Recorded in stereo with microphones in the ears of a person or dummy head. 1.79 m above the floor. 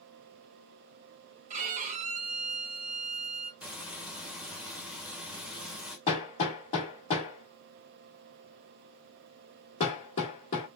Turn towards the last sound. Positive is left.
turn(degrees=30)  # may be behind; listen again after turning